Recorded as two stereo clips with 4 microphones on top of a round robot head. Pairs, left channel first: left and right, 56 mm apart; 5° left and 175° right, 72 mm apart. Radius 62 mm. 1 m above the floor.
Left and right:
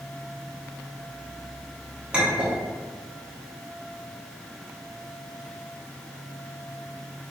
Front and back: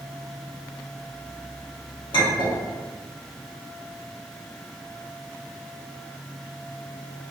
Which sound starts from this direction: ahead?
A clink, at 2.1 s.